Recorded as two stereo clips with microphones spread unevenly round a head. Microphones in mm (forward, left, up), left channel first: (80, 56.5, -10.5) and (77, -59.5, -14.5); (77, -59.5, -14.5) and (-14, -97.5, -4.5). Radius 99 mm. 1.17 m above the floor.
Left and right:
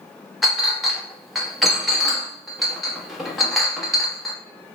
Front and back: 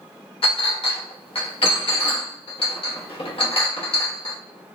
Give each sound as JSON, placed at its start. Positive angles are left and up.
{"t": 0.4, "sound": "a clink", "azimuth_deg": 0, "distance_m": 0.9}